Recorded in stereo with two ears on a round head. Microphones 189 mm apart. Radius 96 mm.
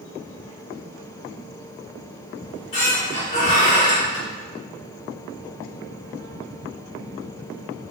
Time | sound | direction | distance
2.4 | a squeak | 35° left (ahead or behind) | 1.9 m